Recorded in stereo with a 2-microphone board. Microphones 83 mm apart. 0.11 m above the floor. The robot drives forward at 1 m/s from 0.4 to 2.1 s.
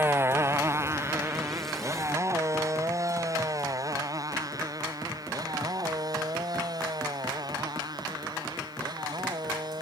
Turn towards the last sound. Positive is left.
turn(degrees=-55)  # may be behind; listen again after turning